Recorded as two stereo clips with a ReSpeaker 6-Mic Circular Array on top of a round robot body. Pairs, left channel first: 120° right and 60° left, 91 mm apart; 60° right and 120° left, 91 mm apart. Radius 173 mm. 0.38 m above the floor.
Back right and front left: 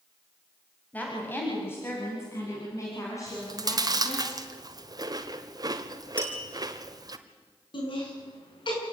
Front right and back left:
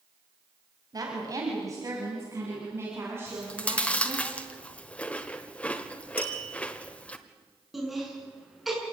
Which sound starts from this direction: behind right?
Laughter, at 7.7 s.